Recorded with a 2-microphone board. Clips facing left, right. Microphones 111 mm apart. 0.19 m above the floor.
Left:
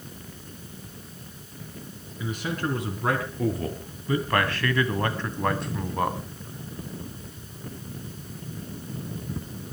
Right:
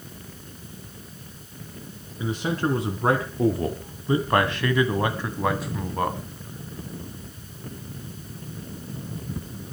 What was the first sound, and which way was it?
A man speaking, 35° right (ahead or behind).